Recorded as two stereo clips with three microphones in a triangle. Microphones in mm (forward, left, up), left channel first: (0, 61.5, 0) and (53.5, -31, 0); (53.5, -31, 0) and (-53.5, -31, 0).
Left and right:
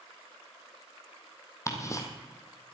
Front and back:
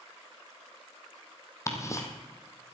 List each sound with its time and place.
1.7 s ticking: 60° left, 1.6 m